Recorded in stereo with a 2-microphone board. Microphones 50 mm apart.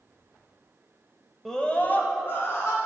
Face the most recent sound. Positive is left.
turn(degrees=60)  # may be behind; listen again after turning